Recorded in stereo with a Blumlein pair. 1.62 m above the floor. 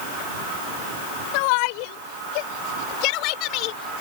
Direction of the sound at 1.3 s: 45° left.